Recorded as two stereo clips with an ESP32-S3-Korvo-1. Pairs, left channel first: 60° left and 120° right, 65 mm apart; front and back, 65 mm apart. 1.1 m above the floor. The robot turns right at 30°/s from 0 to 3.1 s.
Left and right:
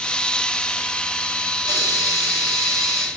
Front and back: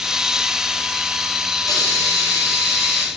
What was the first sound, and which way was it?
A hiss, 10° left.